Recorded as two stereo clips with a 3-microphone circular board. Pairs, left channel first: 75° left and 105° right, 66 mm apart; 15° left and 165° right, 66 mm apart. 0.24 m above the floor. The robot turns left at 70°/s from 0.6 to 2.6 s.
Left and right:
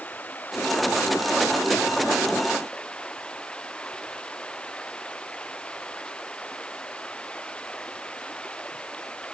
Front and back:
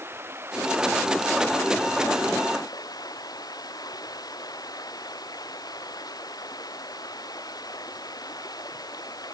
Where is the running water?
140° left; by 9.3 s straight ahead.